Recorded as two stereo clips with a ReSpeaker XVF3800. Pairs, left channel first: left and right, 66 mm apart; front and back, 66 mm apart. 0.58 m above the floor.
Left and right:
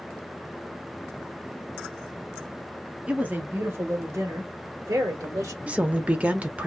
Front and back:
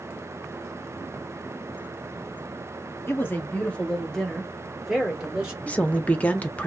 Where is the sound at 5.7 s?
45° right, 0.6 m.